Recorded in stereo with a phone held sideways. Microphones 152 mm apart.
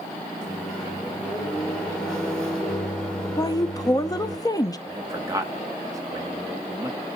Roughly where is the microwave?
Centre.